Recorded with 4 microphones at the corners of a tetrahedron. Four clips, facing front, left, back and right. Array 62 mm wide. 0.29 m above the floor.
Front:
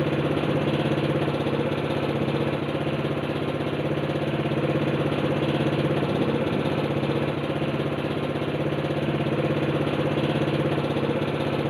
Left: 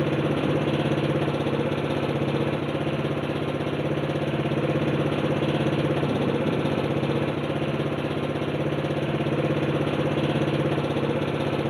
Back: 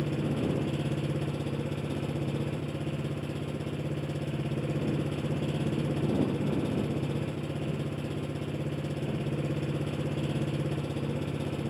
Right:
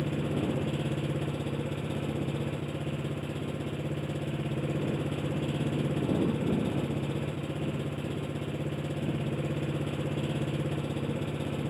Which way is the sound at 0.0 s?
45° left.